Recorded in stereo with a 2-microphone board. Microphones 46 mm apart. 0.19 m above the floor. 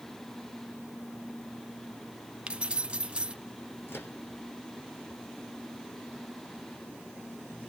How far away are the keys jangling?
About 0.8 m.